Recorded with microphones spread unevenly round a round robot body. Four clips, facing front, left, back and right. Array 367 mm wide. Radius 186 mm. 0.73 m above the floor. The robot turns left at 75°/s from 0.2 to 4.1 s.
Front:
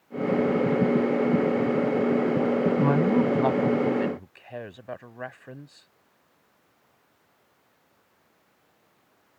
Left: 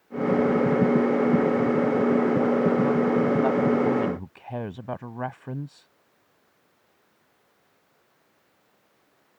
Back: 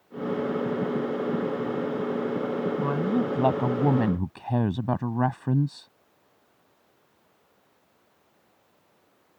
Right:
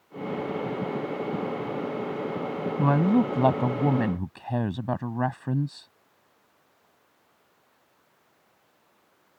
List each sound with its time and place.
2.8 s a woman speaking: 55° right; by 5.9 s 155° right